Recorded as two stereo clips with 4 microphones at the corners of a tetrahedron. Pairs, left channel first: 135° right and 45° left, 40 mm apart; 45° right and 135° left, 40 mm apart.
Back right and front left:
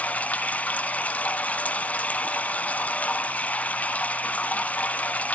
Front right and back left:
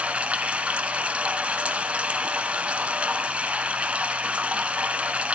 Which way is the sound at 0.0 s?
175° right.